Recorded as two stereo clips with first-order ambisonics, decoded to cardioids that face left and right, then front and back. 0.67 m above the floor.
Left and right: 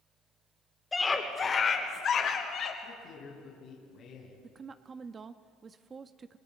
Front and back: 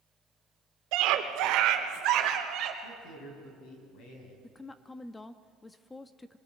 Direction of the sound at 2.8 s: 40° left.